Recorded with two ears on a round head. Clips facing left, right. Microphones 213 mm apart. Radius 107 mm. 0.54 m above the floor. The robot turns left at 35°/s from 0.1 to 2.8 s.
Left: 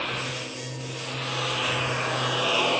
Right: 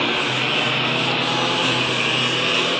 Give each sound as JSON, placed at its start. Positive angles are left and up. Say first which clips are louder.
{"t": 0.0, "sound": "a lawn mower", "louder": "right 10 dB", "side_deg": -65}